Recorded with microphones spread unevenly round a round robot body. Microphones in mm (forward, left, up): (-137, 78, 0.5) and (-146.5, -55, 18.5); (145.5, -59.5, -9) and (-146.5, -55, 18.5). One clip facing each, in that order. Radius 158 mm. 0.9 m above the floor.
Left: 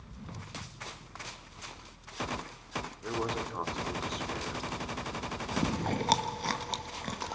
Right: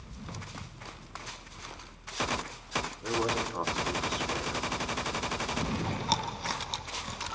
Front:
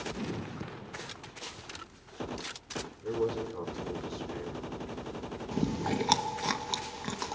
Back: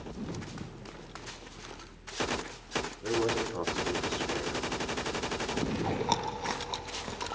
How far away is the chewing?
About 0.7 m.